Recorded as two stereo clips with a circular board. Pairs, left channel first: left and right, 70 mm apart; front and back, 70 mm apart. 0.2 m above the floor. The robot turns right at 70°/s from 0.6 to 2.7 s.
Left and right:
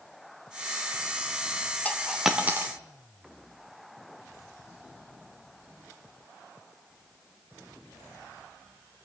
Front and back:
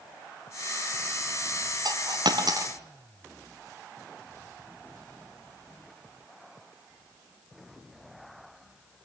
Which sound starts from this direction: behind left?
A dropped coin, at 1.9 s.